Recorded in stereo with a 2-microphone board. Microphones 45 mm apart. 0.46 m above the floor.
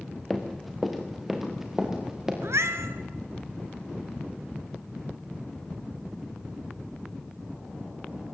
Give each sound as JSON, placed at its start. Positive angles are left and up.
{"t": 0.3, "sound": "running footsteps", "side_deg": 5, "distance_m": 3.0}
{"t": 2.4, "sound": "a cat meowing", "side_deg": -85, "distance_m": 1.7}